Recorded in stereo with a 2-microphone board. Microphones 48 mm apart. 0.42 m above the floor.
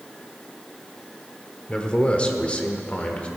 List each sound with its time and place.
1.7 s a man speaking: 20° left (ahead or behind), 1.1 m; by 3.3 s 25° left (ahead or behind), 1.3 m